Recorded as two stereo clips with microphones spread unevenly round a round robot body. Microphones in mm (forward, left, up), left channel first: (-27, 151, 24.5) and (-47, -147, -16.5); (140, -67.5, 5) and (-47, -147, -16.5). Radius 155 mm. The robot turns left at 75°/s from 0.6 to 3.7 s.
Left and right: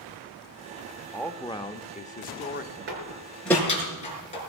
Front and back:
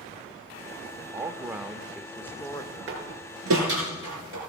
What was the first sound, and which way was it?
A man speaking, 170° right.